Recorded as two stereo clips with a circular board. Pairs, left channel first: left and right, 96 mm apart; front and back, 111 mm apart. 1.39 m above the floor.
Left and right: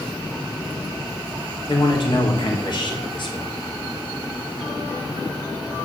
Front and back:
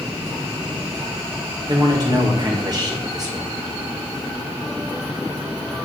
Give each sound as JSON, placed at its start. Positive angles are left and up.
{"t": 1.7, "sound": "a man speaking", "azimuth_deg": 125, "distance_m": 1.7}